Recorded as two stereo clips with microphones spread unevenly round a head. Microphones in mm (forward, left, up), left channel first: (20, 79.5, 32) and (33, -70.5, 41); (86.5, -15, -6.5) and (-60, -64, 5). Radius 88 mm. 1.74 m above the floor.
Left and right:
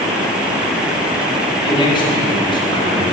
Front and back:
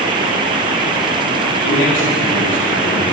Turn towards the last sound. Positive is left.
turn(degrees=35)